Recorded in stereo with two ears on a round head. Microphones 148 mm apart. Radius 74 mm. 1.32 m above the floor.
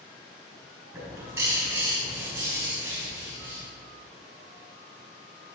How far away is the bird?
About 4.5 m.